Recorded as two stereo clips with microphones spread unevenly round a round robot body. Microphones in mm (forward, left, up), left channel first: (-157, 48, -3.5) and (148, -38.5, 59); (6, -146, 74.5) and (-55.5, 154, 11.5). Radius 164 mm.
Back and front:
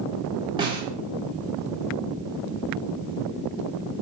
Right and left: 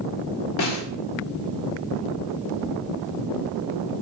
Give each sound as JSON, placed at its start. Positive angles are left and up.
{"t": 0.6, "sound": "a snare drum", "azimuth_deg": -100, "distance_m": 0.8}